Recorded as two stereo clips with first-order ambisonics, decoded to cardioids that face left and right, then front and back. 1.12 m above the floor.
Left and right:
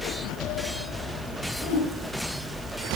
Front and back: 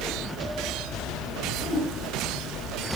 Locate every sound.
1.6 s a whoosh: 75° left, 4 m